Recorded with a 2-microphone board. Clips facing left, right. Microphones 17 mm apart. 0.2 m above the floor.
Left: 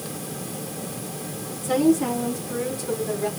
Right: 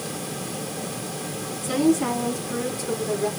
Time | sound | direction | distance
1.6 | a woman speaking | 25° right (ahead or behind) | 2.5 m